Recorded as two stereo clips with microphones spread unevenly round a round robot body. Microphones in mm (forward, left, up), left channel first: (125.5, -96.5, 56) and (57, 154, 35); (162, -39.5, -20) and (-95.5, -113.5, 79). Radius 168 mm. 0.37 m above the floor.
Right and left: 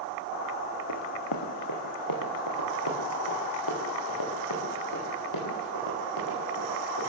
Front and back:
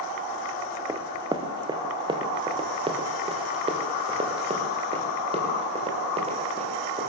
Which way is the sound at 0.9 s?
90° right.